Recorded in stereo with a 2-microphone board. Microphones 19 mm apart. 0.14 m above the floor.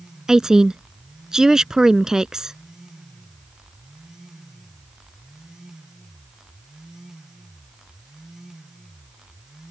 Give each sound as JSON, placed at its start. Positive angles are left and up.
{"t": 0.3, "sound": "a woman speaking", "side_deg": -35}